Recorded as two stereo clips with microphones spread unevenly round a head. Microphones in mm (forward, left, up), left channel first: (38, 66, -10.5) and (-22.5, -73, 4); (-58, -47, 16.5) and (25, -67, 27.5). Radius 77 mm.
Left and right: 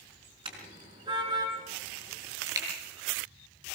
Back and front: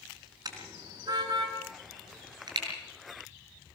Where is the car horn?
55° right, 4.5 m; by 2.6 s 45° right, 6 m.